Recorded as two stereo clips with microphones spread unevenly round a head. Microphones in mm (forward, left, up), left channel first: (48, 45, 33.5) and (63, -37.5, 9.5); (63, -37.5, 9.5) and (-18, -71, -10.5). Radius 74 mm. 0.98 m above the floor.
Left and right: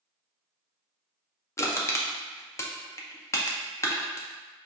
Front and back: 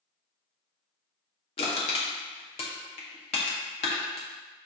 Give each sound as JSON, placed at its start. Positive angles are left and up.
{"t": 1.6, "sound": "crushing", "azimuth_deg": 45, "distance_m": 0.8}